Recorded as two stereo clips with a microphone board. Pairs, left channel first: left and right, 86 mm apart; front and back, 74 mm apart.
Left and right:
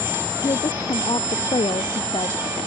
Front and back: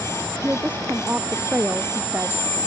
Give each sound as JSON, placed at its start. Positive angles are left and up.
{"t": 0.4, "sound": "a woman speaking", "azimuth_deg": 110}